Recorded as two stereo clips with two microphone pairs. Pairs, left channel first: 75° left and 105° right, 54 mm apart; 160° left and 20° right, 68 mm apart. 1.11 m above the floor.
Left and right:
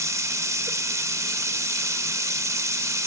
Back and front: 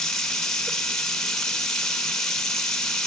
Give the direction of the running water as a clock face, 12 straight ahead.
4 o'clock.